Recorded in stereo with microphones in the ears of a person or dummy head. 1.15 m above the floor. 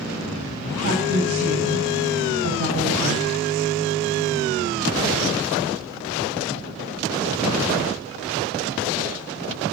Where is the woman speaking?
80° right, 7.5 m.